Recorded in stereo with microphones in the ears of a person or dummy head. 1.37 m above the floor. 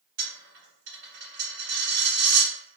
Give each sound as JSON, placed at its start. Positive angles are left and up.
{"t": 0.2, "sound": "a dropped coin", "side_deg": -65, "distance_m": 1.9}